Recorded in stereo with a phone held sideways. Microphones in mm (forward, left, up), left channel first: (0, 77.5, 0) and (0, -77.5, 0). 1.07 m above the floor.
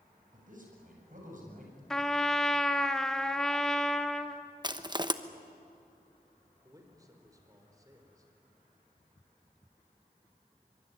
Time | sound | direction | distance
0.3 | a man speaking | 60° right (ahead or behind) | 7.5 m
1.9 | a trumpet | 5° left (ahead or behind) | 1.0 m
4.6 | crushing | 30° right (ahead or behind) | 1.0 m
6.6 | a man speaking | 20° right (ahead or behind) | 4.5 m